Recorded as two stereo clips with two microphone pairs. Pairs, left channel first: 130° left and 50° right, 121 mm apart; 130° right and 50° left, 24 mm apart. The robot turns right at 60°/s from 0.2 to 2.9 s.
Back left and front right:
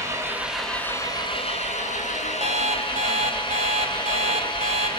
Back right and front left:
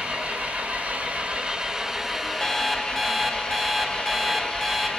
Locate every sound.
0.0 s an engine running: 20° left, 6 m; by 5.0 s straight behind, 6 m
2.4 s an alarm clock: 75° right, 3 m; by 4.9 s 45° right, 3 m